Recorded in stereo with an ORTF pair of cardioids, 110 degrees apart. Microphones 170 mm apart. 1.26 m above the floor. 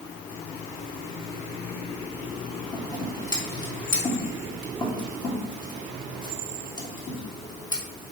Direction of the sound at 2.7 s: 25° left.